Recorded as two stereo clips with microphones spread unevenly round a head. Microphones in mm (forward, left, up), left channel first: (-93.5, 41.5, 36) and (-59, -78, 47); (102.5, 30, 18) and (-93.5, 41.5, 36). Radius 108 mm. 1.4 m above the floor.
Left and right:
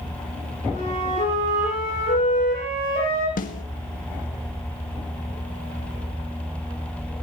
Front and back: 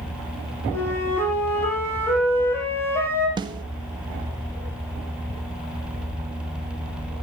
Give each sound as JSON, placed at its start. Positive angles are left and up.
{"t": 0.7, "sound": "a flute", "azimuth_deg": 75, "distance_m": 8.0}
{"t": 3.4, "sound": "a snare drum", "azimuth_deg": 110, "distance_m": 2.0}